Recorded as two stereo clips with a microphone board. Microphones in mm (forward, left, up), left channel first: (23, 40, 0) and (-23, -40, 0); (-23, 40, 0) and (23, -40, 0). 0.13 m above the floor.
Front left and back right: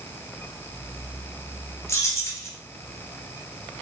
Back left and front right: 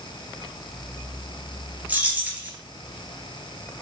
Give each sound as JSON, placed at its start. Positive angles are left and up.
{"t": 1.9, "sound": "keys jangling", "azimuth_deg": 10, "distance_m": 2.0}